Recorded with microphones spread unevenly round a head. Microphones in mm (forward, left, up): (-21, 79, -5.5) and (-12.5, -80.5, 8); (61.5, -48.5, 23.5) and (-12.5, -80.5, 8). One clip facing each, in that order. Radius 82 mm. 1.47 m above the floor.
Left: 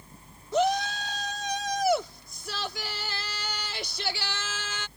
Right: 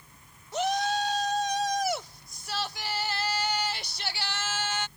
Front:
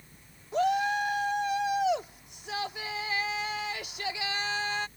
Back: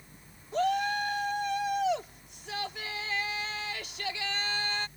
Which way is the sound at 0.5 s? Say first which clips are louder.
Left 2 dB, front 2 dB; 105° left.